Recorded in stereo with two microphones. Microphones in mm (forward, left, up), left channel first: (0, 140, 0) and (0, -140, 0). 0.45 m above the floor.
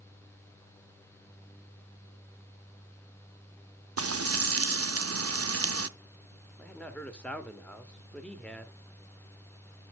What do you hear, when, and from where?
4.0 s frying: 55° right (ahead or behind), 0.5 m
6.6 s a man speaking: 5° left (ahead or behind), 1.0 m